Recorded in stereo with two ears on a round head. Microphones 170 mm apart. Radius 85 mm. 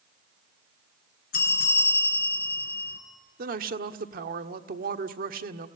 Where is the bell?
55° left (ahead or behind), 3 m.